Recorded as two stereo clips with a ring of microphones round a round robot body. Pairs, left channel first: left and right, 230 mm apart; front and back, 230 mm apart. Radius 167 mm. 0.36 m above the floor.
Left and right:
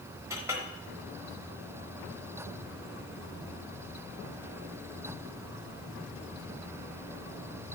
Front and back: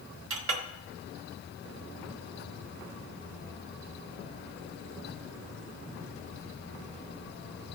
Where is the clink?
170° right, 0.9 m.